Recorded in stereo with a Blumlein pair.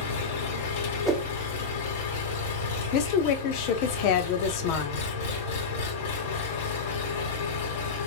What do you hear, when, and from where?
0.0 s an engine running: 55° left, 3 m
1.1 s a whoosh: 10° right, 1.5 m
2.9 s a woman speaking: 45° left, 0.8 m